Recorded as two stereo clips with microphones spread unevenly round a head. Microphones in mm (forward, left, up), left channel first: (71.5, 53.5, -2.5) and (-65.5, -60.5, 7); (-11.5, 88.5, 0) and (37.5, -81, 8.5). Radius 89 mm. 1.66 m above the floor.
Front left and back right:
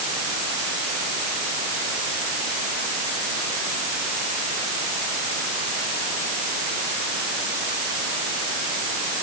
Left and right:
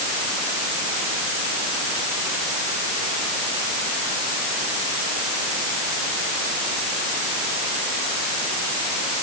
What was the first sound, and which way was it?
Only background noise.